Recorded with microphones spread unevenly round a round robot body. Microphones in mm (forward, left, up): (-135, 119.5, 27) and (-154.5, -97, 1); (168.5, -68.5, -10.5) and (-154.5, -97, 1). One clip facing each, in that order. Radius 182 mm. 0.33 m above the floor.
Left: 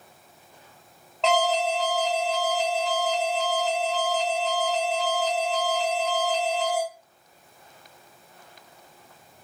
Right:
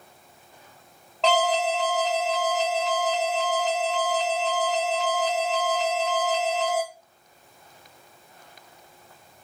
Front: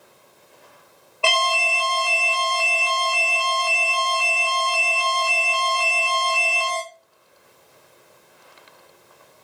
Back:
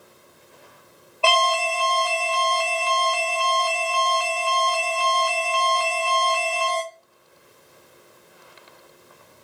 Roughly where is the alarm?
Ahead right.